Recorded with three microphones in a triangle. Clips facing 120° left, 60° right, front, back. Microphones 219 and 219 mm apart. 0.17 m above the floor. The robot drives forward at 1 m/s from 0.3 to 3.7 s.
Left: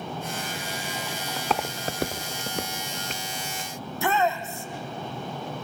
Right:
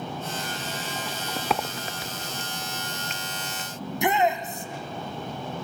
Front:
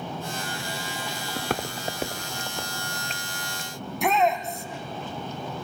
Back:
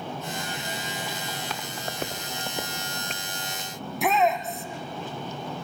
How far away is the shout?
About 1.2 m.